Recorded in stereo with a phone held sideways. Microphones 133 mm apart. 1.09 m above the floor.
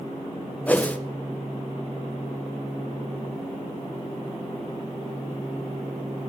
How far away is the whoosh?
About 0.5 m.